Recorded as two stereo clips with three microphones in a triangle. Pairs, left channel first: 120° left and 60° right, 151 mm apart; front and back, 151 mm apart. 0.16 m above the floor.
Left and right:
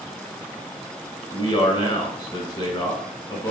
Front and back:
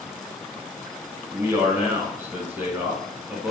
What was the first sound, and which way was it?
A man speaking, 125° left.